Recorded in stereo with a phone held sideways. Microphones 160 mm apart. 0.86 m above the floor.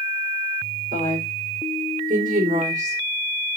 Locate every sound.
0.9 s a woman speaking: 75° right (ahead or behind), 3.5 m; by 3.0 s 50° right (ahead or behind), 2.5 m